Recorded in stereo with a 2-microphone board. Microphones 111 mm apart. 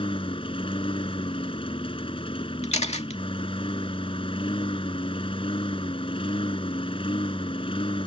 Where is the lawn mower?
55° left (ahead or behind).